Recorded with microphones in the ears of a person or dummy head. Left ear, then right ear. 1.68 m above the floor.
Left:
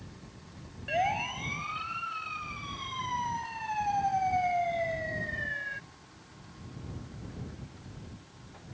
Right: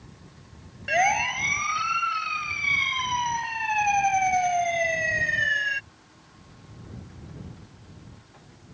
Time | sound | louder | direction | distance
0.9 | a siren | right 8 dB | 60° right (ahead or behind) | ?